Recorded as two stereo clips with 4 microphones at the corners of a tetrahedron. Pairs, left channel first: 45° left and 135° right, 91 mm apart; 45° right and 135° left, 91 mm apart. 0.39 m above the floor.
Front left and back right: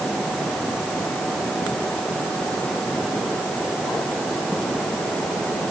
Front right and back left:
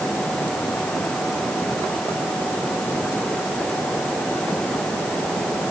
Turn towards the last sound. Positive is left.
No sound to turn to.